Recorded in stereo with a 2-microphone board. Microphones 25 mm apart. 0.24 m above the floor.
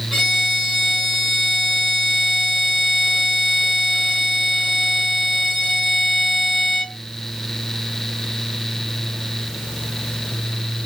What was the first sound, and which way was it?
A violin, 10° right (ahead or behind).